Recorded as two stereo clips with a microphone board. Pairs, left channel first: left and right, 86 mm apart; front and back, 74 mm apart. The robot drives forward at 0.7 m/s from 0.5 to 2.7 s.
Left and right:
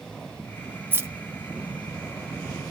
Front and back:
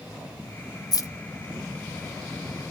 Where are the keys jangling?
25° right, 0.6 m; by 1.1 s 35° right, 0.5 m.